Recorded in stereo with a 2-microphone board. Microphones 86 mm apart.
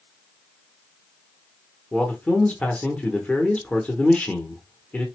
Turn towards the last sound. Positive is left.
turn(degrees=15)  # may be behind; listen again after turning